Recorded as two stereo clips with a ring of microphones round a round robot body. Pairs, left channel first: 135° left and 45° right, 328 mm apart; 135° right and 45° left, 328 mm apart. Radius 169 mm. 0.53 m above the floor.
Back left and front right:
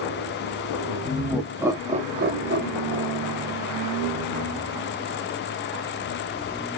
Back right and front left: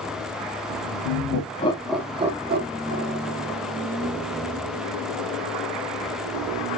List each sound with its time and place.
1.0 s laughter: 150° right, 0.8 m; by 3.5 s 5° left, 1.4 m